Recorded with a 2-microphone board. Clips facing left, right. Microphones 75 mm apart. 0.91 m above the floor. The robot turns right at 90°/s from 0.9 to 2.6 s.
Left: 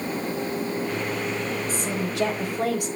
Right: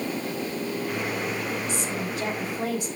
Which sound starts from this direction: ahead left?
A woman speaking, at 1.7 s.